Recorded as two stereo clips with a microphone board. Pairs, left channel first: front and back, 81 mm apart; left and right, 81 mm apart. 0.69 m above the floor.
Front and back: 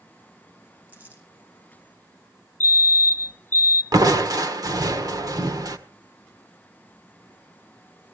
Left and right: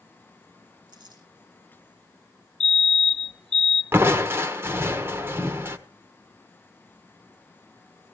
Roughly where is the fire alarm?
Ahead.